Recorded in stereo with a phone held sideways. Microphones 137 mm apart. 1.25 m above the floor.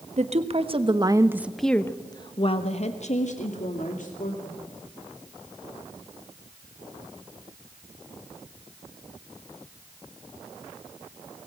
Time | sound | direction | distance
0.2 | a woman speaking | 55° right (ahead or behind) | 1.5 m